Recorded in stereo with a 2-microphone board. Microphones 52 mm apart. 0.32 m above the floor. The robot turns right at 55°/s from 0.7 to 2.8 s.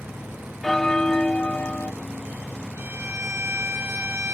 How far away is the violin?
About 5.5 m.